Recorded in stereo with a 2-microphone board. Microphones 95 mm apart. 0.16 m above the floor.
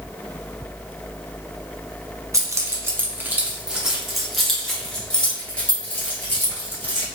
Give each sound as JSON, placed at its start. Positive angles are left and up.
{"t": 2.3, "sound": "keys jangling", "side_deg": -35, "distance_m": 1.0}